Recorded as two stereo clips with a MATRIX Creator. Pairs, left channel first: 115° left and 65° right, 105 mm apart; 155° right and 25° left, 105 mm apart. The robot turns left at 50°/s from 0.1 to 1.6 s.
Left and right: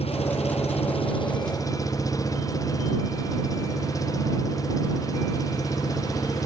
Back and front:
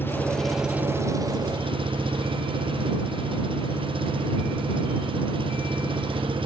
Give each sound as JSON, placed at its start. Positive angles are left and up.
{"t": 0.0, "sound": "an engine running", "azimuth_deg": 130}